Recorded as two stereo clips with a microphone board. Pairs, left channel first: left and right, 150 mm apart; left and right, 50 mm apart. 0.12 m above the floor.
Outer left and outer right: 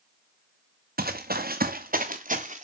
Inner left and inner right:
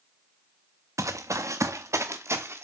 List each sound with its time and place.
1.0 s running footsteps: 80° right, 0.8 m; by 2.6 s 55° right (ahead or behind), 1.2 m